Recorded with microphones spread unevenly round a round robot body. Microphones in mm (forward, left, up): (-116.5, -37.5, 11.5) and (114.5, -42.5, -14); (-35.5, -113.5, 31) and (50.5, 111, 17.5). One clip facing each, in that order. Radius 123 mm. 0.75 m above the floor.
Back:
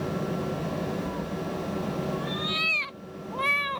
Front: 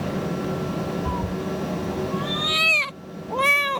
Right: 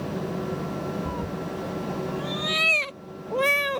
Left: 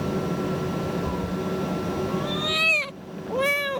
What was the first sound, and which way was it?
A cat meowing, 15° right.